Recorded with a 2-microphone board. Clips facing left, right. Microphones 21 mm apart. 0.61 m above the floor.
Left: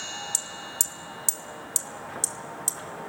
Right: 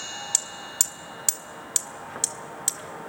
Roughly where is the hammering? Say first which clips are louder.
Right 5 dB; right.